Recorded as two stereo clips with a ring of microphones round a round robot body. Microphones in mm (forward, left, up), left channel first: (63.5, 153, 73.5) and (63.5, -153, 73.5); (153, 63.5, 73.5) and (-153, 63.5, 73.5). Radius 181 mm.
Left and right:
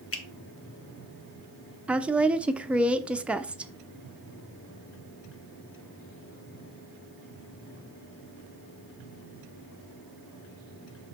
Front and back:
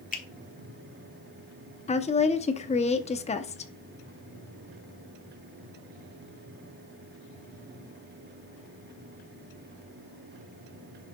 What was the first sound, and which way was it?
A finger snap, 60° left.